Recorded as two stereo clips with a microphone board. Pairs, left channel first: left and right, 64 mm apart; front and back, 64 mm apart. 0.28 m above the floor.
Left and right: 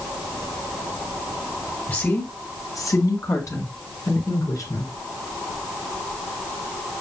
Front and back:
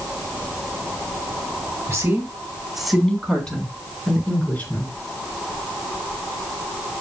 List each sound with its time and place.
1.9 s a woman speaking: 135° left, 2 m; by 4.9 s 60° left, 5 m